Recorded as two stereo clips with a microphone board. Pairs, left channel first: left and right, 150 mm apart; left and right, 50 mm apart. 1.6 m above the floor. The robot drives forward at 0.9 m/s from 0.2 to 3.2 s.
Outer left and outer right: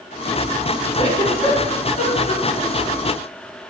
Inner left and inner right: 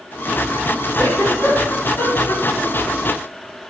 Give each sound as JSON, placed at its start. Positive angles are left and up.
{"t": 1.0, "sound": "a giggle", "side_deg": 40, "distance_m": 3.5}